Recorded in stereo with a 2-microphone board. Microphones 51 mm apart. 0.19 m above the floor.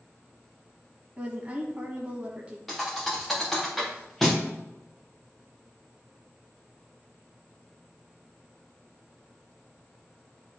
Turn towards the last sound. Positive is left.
turn(degrees=5)  # may be behind; listen again after turning